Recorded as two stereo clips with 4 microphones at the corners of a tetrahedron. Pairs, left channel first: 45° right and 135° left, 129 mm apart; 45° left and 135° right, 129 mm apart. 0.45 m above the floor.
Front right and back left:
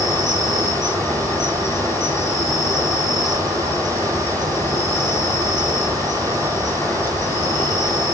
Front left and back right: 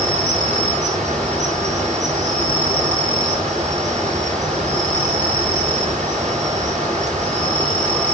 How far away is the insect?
About 3 m.